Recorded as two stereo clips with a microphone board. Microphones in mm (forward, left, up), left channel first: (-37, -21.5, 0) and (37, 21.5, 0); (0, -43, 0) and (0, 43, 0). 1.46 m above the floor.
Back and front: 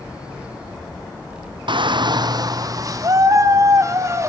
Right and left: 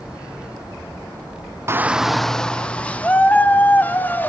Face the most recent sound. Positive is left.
turn(degrees=-20)